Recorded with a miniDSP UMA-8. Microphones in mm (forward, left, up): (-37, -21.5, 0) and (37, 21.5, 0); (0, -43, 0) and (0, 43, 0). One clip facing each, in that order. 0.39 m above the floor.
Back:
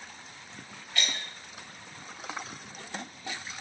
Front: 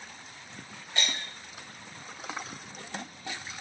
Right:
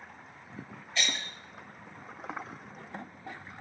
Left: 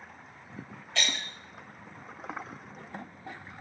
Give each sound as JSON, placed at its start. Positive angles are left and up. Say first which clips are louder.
{"t": 0.9, "sound": "breaking glass", "louder": "front 1 dB, left 1 dB", "azimuth_deg": 95, "distance_m": 6.5}